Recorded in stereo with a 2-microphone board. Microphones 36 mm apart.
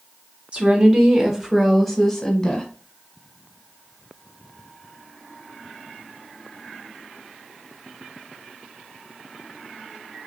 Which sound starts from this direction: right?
A woman speaking, at 0.5 s.